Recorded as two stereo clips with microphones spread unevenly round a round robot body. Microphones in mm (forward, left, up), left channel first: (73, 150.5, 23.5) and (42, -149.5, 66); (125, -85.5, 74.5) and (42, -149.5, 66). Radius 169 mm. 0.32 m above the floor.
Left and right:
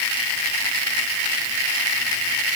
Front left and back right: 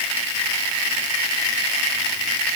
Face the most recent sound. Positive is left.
No sound to turn to.